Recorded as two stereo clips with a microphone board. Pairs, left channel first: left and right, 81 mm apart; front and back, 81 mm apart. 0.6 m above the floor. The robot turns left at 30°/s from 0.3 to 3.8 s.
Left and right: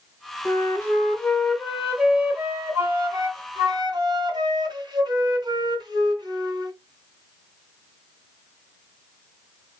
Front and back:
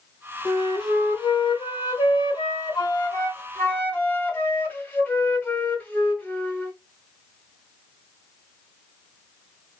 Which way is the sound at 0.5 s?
30° left.